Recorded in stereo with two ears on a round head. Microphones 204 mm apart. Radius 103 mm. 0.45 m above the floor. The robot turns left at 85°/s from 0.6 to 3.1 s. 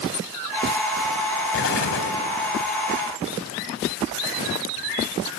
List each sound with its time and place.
1.5 s an explosion: 125° left, 1.7 m; by 2.1 s 75° left, 1.7 m